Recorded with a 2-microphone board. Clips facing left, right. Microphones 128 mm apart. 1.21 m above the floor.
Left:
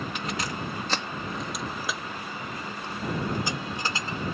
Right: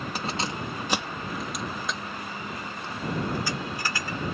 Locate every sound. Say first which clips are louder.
0.1 s keys jangling: right 1 dB; 35° right (ahead or behind); by 4.2 s 25° left (ahead or behind)